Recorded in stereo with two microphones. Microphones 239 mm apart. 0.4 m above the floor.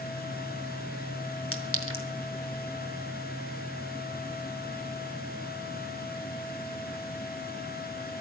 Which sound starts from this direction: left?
A clink, at 1.5 s.